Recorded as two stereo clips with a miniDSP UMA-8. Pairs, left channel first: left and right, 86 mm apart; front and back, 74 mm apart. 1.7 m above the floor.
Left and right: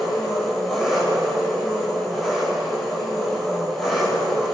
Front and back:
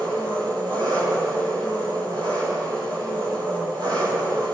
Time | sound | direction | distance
0.0 | an engine running | straight behind | 8 m